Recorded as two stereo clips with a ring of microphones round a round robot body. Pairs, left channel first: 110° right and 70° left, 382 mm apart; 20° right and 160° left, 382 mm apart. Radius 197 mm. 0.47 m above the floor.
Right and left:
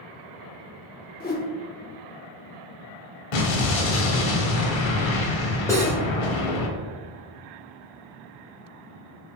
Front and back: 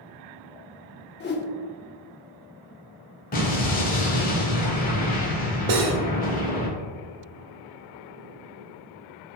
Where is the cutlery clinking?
165° left, 1.2 m.